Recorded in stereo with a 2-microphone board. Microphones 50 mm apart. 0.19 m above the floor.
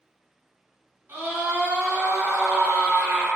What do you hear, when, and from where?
1.1 s a scream: 50° right (ahead or behind), 1.6 m